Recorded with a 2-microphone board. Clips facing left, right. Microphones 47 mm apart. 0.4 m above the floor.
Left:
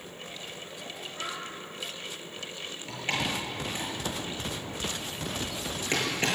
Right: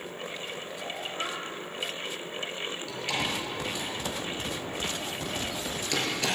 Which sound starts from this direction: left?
A door slam, at 2.9 s.